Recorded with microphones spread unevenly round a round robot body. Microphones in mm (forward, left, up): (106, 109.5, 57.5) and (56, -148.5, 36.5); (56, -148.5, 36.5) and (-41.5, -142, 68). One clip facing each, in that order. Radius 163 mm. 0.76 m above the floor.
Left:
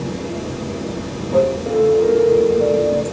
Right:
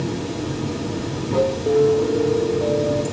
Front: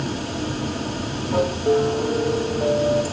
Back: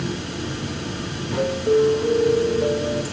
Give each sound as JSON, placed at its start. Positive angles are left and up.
{"t": 0.0, "sound": "running water", "azimuth_deg": -50, "distance_m": 5.5}
{"t": 1.7, "sound": "a piano", "azimuth_deg": -40, "distance_m": 6.0}